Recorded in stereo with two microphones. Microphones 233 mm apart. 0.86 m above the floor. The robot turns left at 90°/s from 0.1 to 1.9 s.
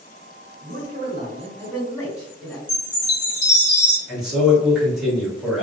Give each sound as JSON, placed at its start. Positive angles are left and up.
{"t": 0.6, "sound": "a man speaking", "azimuth_deg": -65, "distance_m": 1.6}
{"t": 2.7, "sound": "a chime", "side_deg": -50, "distance_m": 1.4}
{"t": 4.1, "sound": "a man speaking", "side_deg": 0, "distance_m": 1.7}